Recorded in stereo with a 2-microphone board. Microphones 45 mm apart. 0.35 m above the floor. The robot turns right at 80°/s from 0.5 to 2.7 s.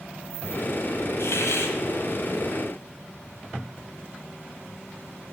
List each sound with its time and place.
1.2 s a hiss: 65° left, 0.9 m; by 1.8 s 115° left, 0.9 m